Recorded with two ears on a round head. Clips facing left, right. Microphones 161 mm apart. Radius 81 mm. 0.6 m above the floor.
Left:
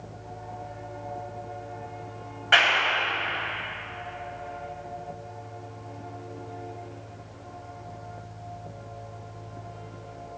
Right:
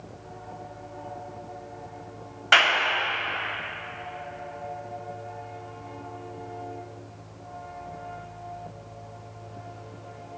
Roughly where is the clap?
Right.